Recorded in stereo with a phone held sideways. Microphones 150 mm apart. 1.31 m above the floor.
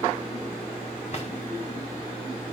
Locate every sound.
1.1 s a drawer: 45° left (ahead or behind), 3 m